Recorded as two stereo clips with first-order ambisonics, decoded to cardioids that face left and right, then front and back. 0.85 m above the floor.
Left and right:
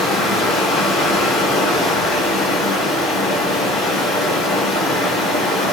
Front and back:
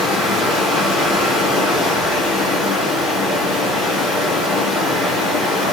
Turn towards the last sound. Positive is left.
turn(degrees=50)